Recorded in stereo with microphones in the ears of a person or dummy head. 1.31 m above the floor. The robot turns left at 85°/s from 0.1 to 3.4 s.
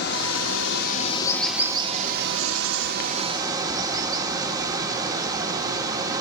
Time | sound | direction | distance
0.0 | running water | 120° left | 2 m